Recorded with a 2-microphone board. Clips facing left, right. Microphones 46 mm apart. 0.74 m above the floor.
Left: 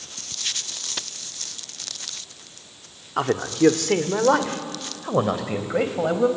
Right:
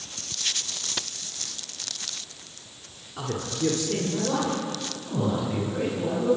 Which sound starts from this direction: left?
A man speaking, at 3.2 s.